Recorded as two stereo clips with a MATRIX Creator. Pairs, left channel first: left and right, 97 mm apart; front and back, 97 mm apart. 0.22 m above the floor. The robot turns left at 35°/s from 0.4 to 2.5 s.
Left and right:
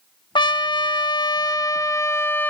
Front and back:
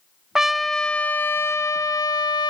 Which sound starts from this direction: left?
A trumpet, at 0.3 s.